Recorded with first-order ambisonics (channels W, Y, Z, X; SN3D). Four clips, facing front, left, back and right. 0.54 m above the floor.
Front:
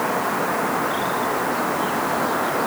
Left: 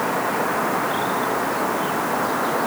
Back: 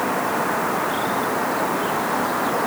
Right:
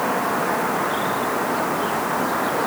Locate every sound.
Only background noise.